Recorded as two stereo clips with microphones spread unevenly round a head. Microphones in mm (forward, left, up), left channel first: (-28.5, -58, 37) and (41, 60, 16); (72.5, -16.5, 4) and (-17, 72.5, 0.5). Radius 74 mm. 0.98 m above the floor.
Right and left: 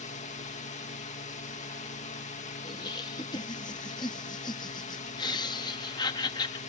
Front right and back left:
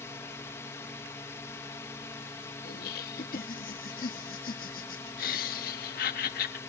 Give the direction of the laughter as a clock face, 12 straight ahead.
2 o'clock.